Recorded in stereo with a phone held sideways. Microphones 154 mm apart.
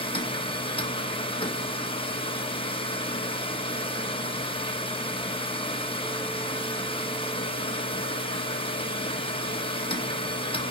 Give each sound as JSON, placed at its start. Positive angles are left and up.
{"t": 0.0, "sound": "a machine running", "side_deg": 35, "distance_m": 1.2}